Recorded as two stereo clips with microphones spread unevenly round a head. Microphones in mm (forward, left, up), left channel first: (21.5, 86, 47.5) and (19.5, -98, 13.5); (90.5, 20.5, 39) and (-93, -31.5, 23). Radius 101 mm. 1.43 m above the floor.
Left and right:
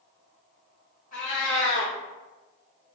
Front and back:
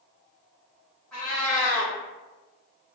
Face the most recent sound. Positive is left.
turn(degrees=100)